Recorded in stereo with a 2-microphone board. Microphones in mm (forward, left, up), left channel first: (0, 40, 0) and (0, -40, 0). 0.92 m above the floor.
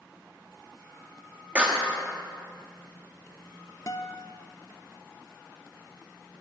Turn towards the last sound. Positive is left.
turn(degrees=45)  # may be behind; listen again after turning